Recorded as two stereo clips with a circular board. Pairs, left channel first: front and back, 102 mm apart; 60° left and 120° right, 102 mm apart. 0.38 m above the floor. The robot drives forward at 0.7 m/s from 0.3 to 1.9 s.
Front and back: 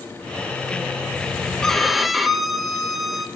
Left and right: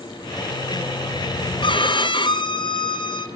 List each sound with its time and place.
1.6 s a violin: 85° left, 1.8 m; by 3.3 s 90° left, 1.8 m